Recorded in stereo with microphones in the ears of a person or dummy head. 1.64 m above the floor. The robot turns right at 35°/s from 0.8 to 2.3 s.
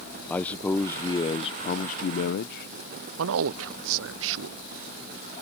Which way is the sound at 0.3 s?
10° left.